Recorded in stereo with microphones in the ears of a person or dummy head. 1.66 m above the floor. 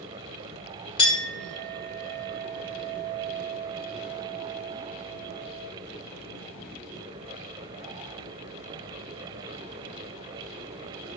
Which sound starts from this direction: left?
A clink, at 1.0 s.